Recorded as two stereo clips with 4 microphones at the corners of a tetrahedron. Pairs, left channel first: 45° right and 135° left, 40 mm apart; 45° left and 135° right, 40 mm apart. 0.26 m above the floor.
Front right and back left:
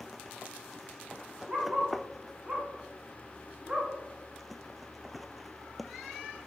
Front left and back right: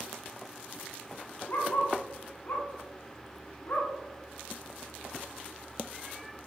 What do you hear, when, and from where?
1.5 s a dog barking: 70° left, 1.3 m